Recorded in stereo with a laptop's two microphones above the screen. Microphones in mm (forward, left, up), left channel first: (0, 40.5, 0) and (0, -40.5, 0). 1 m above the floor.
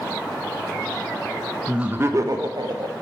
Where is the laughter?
10° right (ahead or behind), 0.5 m; by 2.9 s 70° right (ahead or behind), 1.0 m.